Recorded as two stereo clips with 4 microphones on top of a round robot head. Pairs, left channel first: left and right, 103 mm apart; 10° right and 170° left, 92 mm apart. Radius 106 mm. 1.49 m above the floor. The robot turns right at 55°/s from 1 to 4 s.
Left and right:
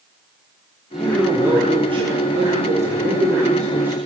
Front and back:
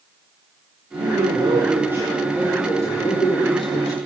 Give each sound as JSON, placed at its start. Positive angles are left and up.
{"t": 0.9, "sound": "a man speaking", "azimuth_deg": -175, "distance_m": 7.5}